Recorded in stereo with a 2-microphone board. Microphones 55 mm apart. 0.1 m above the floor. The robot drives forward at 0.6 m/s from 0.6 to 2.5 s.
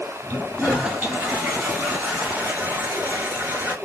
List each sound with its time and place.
0.3 s a toilet flushing: 25° right (ahead or behind), 2 m; by 3.8 s 30° right (ahead or behind), 1.7 m